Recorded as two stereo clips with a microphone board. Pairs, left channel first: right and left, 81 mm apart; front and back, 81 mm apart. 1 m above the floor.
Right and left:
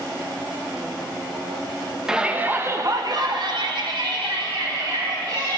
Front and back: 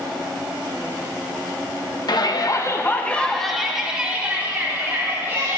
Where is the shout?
10° left, 1.1 m; by 5.6 s 120° left, 3 m.